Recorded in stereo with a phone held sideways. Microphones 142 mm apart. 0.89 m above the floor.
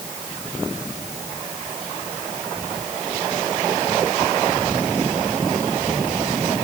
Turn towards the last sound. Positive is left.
No sound to turn to.